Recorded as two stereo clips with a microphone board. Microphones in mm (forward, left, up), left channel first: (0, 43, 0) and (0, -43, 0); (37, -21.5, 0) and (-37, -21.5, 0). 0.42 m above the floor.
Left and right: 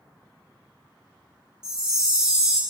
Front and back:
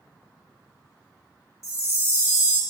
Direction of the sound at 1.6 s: 15° right.